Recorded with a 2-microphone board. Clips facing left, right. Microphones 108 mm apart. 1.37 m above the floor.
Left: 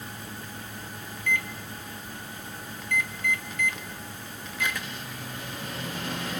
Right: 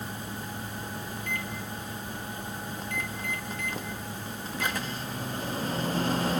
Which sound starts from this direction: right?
A microwave, at 1.2 s.